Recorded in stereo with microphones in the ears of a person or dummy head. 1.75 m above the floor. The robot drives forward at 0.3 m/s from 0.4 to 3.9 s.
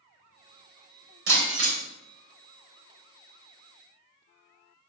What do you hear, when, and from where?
1.3 s breaking glass: 70° right (ahead or behind), 5 m; by 1.8 s 75° right (ahead or behind), 5 m